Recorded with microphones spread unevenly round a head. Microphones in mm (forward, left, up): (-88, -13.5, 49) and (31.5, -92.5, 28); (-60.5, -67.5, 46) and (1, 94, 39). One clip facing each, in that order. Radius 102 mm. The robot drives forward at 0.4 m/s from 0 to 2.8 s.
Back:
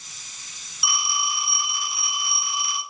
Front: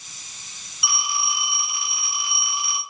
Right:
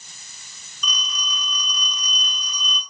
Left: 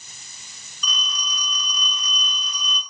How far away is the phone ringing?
About 1.6 m.